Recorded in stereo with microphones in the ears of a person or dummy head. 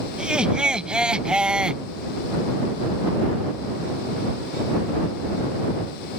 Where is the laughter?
5° right (ahead or behind).